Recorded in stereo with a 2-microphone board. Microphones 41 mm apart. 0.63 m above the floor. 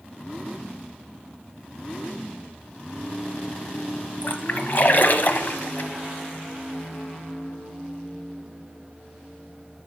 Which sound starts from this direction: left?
A splash, at 4.2 s.